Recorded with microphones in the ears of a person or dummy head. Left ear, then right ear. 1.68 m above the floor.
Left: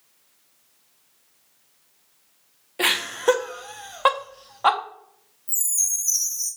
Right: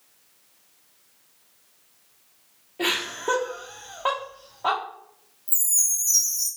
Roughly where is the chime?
Centre.